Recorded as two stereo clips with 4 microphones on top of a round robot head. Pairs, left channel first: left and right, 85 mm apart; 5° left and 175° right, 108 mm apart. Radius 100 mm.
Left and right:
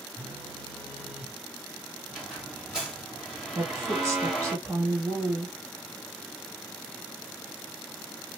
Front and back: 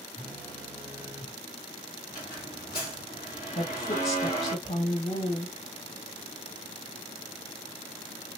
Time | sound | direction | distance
0.2 | a phone buzzing | 85° right | 1.0 m
2.1 | a squeak | 15° right | 1.0 m
3.5 | a woman speaking | 35° right | 1.8 m